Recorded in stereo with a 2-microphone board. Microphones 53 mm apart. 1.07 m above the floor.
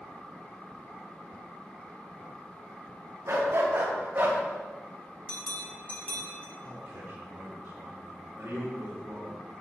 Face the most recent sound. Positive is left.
turn(degrees=-60)  # may be behind; listen again after turning